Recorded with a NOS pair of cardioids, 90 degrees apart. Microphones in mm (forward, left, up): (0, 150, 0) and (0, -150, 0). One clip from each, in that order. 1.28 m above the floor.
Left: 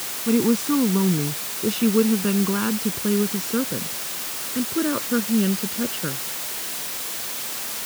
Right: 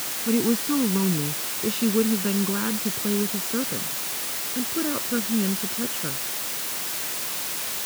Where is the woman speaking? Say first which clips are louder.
Left 3 dB; 25° left; by 6.2 s 35° left.